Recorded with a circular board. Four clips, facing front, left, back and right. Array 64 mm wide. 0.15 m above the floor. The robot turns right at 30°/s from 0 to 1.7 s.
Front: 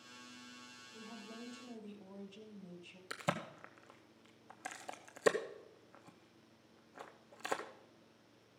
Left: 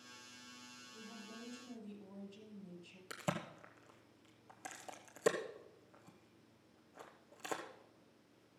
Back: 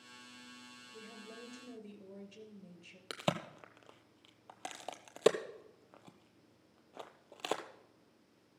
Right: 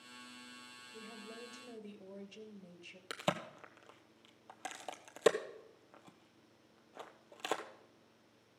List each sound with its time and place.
0.9 s a woman speaking: 140° right, 2.5 m; by 3.0 s 120° right, 2.5 m
3.1 s a crack: 150° right, 1.1 m